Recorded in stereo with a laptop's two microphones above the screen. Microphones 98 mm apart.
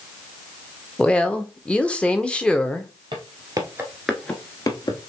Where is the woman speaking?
10° left (ahead or behind), 0.6 m.